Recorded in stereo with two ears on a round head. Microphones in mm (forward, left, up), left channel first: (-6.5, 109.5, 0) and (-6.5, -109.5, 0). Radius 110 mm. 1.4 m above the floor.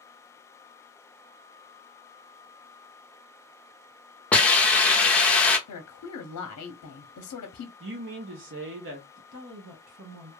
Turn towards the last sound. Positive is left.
turn(degrees=-60)  # may be behind; listen again after turning